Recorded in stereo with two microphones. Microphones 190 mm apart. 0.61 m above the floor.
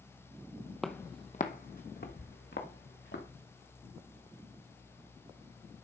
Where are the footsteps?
Centre (ahead or behind), 0.7 m; by 3.2 s 70° left (ahead or behind), 3 m.